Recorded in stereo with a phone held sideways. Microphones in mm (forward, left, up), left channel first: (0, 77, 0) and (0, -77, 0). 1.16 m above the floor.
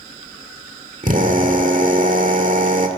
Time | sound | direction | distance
1.0 | a drill | 60° right (ahead or behind) | 1.8 m